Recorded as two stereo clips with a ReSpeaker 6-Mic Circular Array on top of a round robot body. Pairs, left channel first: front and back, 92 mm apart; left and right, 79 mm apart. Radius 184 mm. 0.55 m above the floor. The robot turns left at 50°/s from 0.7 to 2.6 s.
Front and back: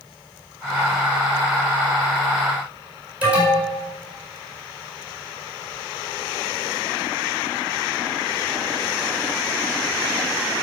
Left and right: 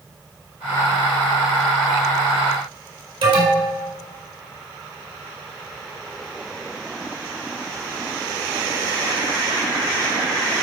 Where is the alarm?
105° right, 5 m.